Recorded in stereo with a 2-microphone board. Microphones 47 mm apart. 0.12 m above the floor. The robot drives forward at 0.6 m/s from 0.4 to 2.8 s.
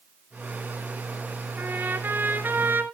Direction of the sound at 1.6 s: 45° right (ahead or behind).